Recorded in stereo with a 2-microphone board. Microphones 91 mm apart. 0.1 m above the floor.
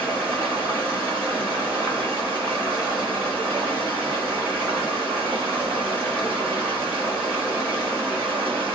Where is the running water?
25° right (ahead or behind), 2 m.